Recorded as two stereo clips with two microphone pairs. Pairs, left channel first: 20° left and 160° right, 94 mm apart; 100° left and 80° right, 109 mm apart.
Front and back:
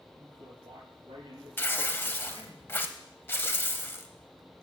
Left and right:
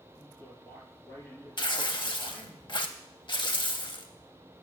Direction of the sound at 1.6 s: 80° left.